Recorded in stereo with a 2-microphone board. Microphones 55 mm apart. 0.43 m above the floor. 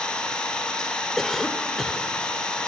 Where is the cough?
5° left (ahead or behind), 1.6 m.